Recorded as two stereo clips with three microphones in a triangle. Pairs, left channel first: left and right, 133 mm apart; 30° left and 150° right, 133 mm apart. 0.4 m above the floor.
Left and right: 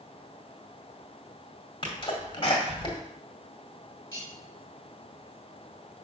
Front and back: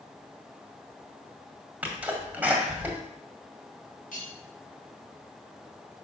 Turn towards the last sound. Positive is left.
turn(degrees=25)